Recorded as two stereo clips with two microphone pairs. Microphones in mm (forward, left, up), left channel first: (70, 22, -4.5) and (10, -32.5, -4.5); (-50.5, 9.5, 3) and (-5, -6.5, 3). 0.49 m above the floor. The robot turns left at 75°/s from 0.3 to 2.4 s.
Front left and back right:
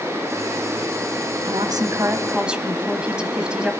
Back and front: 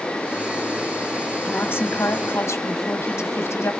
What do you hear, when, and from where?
1.4 s a woman speaking: 145° right, 2.5 m; by 3.7 s 145° left, 2.5 m